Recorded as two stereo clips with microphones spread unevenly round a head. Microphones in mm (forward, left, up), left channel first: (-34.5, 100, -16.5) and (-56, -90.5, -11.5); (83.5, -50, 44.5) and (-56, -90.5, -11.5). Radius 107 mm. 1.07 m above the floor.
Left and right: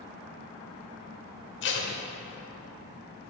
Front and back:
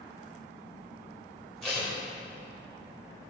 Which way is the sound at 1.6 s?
90° left.